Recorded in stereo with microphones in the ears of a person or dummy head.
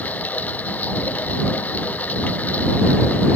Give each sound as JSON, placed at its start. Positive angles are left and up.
{"t": 0.0, "sound": "running water", "side_deg": 5}